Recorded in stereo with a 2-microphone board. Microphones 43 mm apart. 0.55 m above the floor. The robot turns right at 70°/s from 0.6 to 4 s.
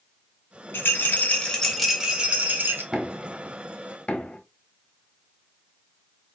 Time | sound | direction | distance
0.7 | a rattle | 105° left | 1.1 m
2.9 | knocking | 15° right (ahead or behind) | 1.1 m